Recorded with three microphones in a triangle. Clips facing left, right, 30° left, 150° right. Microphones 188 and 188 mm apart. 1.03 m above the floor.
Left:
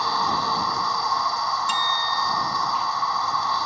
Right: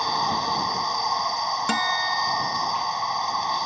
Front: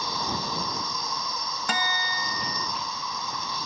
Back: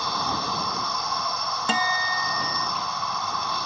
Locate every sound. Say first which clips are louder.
0.0 s an insect: left 1 dB, back 2 dB; 160° right
1.7 s a guitar: right 2 dB, back 4 dB; 90° right